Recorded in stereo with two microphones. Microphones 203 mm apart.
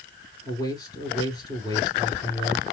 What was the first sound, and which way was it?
A man speaking, 20° left (ahead or behind).